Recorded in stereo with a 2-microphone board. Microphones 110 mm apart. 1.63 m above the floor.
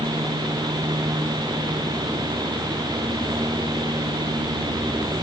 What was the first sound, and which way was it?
Only background noise.